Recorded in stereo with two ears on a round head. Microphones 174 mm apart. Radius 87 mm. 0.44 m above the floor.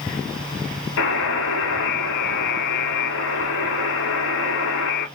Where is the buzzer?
80° left, 1.6 m.